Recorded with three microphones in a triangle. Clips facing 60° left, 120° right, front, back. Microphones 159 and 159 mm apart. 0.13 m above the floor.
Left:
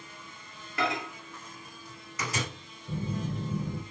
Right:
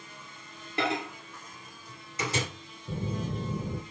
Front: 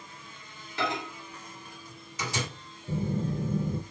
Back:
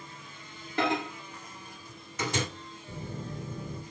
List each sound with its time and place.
0.8 s a microwave: 175° right, 1.8 m
2.9 s a phone buzzing: 55° right, 0.6 m